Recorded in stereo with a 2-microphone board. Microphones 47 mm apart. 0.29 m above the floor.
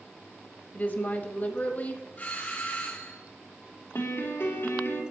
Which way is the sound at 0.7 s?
35° left (ahead or behind).